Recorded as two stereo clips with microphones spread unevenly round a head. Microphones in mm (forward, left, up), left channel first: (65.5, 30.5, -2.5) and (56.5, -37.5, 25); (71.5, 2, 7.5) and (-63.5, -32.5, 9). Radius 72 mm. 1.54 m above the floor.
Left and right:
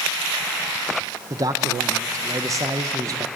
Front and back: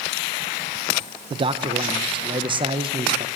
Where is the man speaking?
115° right, 0.9 m.